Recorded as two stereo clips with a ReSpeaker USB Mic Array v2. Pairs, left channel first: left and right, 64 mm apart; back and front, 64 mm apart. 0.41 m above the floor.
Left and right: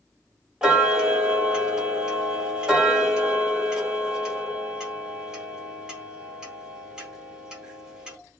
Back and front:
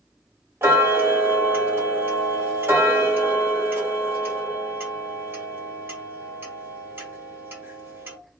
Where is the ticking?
20° right, 0.9 m.